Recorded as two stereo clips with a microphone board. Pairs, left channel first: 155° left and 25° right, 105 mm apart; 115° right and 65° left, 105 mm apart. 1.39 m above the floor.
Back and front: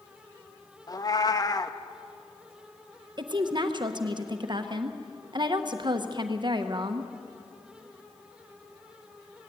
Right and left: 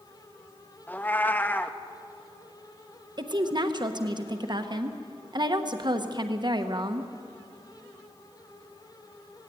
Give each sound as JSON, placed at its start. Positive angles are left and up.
{"t": 0.9, "sound": "a cat meowing", "azimuth_deg": -175, "distance_m": 0.8}
{"t": 3.2, "sound": "a woman speaking", "azimuth_deg": 20, "distance_m": 1.1}